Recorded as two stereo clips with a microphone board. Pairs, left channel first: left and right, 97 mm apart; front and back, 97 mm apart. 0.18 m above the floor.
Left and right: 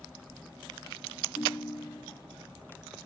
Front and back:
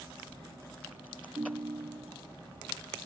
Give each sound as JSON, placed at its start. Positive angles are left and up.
{"t": 1.4, "sound": "a ringtone", "azimuth_deg": 140}